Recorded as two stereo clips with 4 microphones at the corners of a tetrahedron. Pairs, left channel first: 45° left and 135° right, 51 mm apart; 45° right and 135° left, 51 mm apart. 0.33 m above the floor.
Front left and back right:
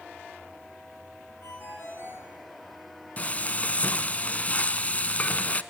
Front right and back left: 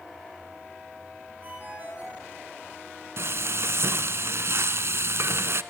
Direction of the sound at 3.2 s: 105° left.